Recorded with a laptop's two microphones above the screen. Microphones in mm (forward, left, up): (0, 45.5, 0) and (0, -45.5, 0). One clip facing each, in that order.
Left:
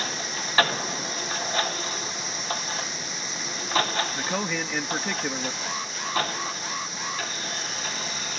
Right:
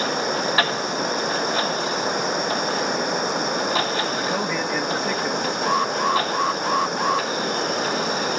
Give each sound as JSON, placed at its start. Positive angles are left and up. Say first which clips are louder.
{"t": 0.0, "sound": "running water", "louder": "right 10 dB", "side_deg": -60}
{"t": 4.2, "sound": "a man speaking", "louder": "right 5 dB", "side_deg": -5}
{"t": 5.6, "sound": "an alarm", "louder": "right 13 dB", "side_deg": -60}